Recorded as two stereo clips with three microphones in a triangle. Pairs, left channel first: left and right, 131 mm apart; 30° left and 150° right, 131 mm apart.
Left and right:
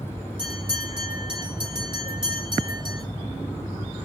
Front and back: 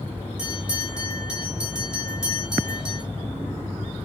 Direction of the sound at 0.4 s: 70° right.